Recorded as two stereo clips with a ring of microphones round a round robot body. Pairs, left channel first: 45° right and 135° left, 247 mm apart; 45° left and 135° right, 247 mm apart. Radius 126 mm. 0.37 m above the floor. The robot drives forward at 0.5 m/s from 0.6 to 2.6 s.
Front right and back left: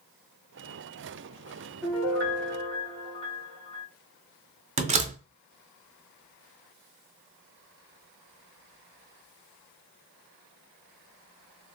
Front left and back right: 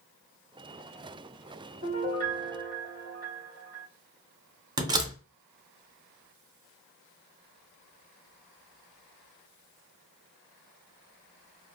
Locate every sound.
1.8 s a piano: 155° right, 1.4 m; by 3.9 s 165° right, 1.6 m
4.8 s a door slam: 165° left, 0.5 m